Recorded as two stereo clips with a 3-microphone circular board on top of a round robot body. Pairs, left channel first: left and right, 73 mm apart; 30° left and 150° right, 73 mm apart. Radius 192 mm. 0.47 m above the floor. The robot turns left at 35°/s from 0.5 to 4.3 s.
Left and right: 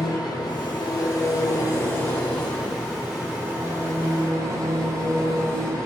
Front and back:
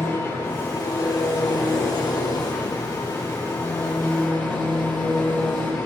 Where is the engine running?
85° left, 8.5 m; by 5.9 s 45° right, 8.5 m.